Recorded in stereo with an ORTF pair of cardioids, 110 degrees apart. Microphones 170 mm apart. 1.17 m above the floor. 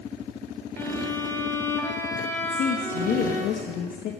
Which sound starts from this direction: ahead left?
A woman speaking, at 2.4 s.